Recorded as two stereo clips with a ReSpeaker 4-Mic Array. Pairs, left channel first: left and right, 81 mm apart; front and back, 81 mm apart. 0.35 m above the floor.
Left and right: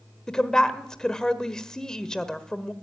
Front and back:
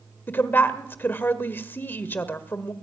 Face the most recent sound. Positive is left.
turn(degrees=20)